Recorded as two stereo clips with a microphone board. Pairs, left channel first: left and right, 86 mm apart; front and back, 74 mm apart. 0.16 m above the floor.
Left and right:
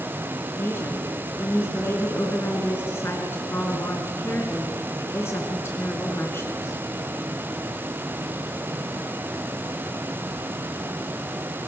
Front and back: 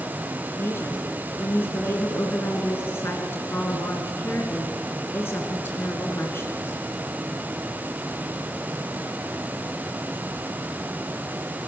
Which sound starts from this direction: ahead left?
A woman speaking, at 0.6 s.